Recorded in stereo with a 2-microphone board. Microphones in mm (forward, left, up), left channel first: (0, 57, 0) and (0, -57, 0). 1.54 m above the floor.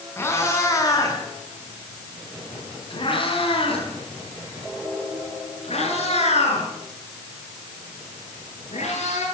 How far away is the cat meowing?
About 7 m.